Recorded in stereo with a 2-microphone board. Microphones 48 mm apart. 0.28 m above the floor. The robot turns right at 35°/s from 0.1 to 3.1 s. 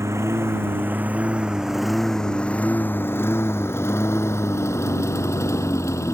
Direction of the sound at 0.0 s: 70° right (ahead or behind).